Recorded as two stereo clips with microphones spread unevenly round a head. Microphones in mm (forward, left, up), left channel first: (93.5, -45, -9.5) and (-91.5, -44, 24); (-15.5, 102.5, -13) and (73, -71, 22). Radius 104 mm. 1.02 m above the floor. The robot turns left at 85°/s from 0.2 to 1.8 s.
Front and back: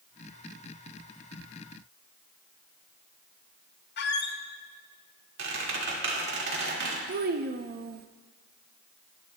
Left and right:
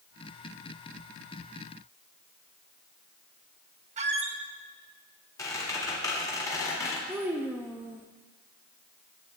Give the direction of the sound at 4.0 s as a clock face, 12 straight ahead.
1 o'clock.